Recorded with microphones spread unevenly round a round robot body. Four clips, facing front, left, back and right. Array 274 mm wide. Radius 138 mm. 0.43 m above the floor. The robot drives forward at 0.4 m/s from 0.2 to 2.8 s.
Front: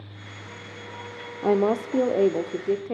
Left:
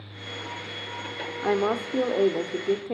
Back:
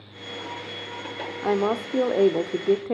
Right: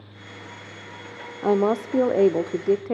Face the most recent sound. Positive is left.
turn(degrees=-145)